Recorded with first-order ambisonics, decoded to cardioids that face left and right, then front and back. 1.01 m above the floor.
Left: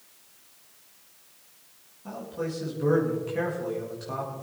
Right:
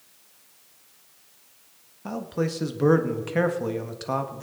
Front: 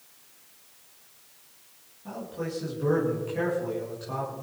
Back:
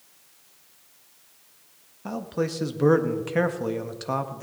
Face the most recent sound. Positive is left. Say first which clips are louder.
# right 5 dB, back 6 dB
turn(degrees=-140)